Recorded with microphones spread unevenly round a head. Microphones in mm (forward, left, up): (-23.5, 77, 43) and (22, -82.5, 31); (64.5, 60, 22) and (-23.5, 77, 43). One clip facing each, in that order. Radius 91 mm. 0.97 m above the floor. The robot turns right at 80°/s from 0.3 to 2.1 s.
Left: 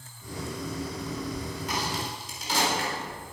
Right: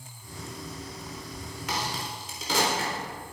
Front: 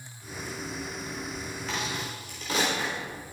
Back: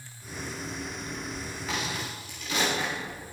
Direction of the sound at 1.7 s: 105° right.